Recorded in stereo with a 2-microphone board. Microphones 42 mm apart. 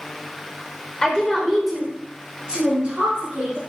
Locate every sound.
1.0 s a woman speaking: 25° left (ahead or behind), 0.9 m; by 3.6 s 35° right (ahead or behind), 1.6 m